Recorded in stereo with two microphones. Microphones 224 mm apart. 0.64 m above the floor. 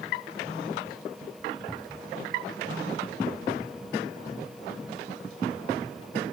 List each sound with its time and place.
1.7 s a cupboard door: centre (ahead or behind)